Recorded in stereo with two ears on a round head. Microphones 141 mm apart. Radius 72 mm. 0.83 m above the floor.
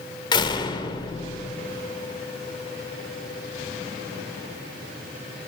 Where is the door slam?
30° left (ahead or behind), 1.7 m.